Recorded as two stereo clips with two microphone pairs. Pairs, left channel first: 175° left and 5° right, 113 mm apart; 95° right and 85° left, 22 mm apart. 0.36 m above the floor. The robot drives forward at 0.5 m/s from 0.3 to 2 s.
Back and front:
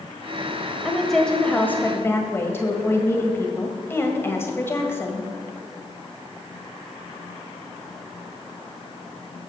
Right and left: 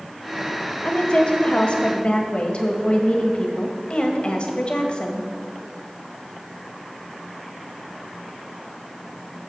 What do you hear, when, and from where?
0.8 s a woman speaking: 90° right, 1.4 m; by 5.3 s 120° right, 1.5 m